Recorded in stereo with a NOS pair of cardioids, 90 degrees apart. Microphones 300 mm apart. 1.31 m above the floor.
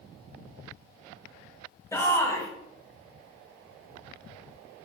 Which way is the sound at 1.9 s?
10° left.